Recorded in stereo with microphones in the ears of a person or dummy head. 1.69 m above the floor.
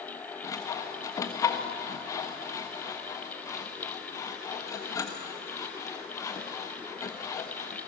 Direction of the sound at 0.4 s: 20° left (ahead or behind).